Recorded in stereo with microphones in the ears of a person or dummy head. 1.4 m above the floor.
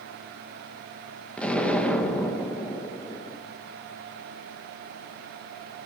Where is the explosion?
5° left (ahead or behind), 1.4 m.